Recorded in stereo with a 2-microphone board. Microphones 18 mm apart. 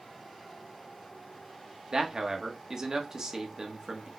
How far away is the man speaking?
About 1.1 m.